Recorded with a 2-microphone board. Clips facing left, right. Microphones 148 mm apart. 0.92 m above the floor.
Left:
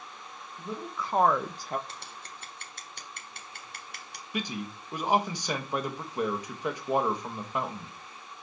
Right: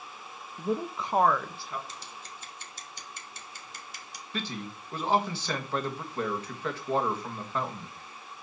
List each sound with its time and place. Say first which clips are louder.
0.6 s a woman speaking: right 6 dB; 55° right (ahead or behind), 0.9 m; by 1.8 s 55° left (ahead or behind), 0.8 m
1.9 s scissors: even; 60° left (ahead or behind), 1.4 m
4.3 s a man speaking: left 2 dB; 15° left (ahead or behind), 1.2 m